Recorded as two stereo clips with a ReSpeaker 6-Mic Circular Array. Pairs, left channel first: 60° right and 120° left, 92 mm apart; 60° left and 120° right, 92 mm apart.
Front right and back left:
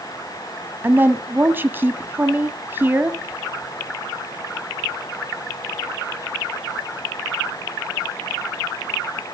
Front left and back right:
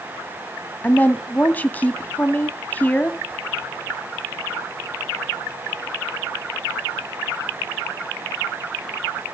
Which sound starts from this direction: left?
A woman speaking, at 0.8 s.